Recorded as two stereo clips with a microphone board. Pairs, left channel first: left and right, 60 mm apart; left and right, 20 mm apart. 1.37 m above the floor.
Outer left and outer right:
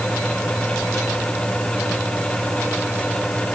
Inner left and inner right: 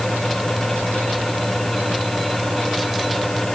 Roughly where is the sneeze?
No sneeze in this recording.